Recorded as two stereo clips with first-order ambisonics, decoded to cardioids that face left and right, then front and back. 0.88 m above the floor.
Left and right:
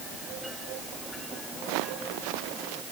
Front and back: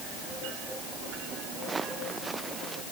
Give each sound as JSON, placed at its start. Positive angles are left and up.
{"t": 1.6, "sound": "footsteps", "azimuth_deg": -105}